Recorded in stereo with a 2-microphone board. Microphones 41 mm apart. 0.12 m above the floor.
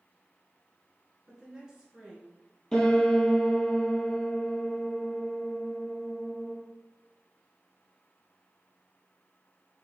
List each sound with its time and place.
1.3 s a woman speaking: 20° right (ahead or behind), 1.3 m
2.7 s a piano: 15° left (ahead or behind), 1.3 m